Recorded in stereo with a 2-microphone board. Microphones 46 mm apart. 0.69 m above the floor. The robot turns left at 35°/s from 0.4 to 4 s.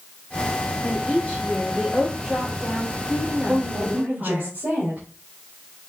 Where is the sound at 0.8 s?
20° left, 2.5 m; by 4.5 s 90° right, 2.5 m.